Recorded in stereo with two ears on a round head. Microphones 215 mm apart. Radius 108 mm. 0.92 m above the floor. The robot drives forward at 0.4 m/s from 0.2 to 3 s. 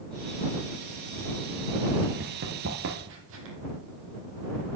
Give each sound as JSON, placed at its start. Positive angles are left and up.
{"t": 2.2, "sound": "running footsteps", "side_deg": -40, "distance_m": 1.2}